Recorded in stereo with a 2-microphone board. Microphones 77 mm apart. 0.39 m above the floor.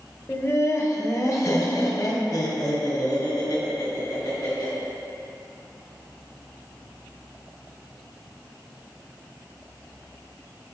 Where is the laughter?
30° left (ahead or behind), 1.2 m; by 4.7 s 60° left (ahead or behind), 3.5 m.